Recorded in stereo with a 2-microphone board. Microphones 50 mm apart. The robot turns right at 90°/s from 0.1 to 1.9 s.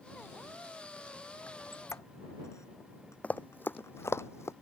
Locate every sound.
1.5 s a squeak: 35° left (ahead or behind); by 4.2 s 75° left (ahead or behind)
3.2 s running footsteps: 30° left (ahead or behind); by 4.5 s 70° left (ahead or behind)